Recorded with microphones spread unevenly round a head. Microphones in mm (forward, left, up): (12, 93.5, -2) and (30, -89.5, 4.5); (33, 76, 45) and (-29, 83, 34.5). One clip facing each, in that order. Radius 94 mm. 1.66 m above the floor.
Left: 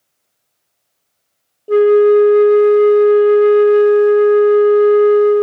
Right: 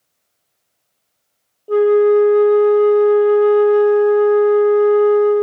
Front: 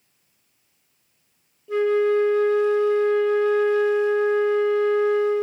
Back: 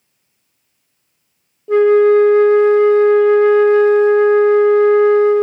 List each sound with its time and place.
1.7 s a flute: 150° left, 0.6 m